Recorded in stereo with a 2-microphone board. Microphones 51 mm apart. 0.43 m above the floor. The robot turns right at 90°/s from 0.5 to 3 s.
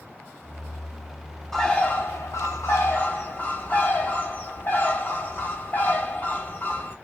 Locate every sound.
1.5 s a bird: 5° left, 0.7 m; by 7.0 s 140° left, 0.7 m